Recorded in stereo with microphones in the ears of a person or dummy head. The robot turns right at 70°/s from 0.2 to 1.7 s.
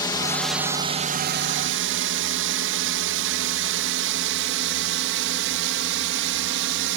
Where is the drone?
20° left (ahead or behind); by 7.0 s 60° right (ahead or behind).